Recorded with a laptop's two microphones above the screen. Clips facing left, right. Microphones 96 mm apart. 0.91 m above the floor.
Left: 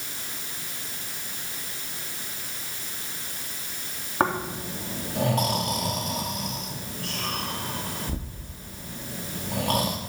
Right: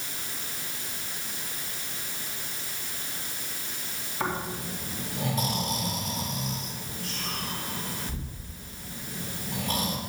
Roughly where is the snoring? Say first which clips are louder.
Left 6 dB; left.